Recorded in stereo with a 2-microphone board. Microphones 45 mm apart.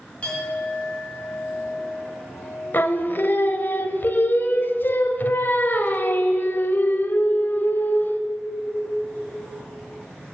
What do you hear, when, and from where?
0.2 s a clink: 25° left (ahead or behind), 3.5 m
2.7 s singing: 45° left (ahead or behind), 0.6 m